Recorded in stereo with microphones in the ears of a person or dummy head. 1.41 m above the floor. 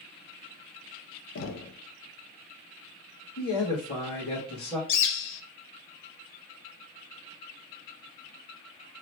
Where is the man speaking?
35° left (ahead or behind), 2 m.